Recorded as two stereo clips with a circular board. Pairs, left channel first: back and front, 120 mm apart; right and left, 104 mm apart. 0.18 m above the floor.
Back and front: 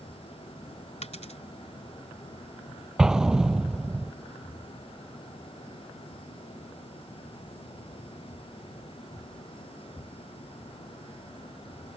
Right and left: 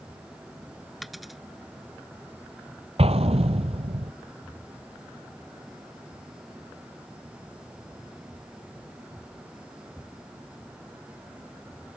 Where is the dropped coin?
Straight behind.